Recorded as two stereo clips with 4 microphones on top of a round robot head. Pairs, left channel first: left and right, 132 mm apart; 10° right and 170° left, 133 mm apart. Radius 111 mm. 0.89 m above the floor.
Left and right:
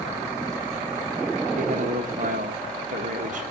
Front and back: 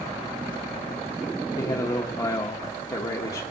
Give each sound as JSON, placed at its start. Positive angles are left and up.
{"t": 1.6, "sound": "a man speaking", "azimuth_deg": -75, "distance_m": 0.9}